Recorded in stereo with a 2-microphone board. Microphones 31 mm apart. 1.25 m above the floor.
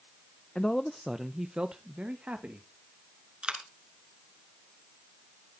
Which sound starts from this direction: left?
A man speaking, at 0.6 s.